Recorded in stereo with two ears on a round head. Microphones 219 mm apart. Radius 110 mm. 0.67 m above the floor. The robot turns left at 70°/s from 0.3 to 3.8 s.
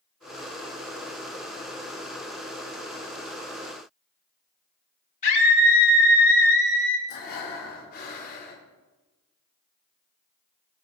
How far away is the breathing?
About 2.5 m.